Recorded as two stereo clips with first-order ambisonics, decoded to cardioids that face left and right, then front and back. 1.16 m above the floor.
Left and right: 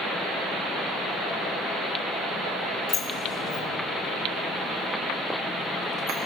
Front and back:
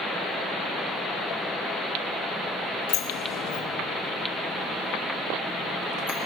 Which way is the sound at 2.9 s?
25° left.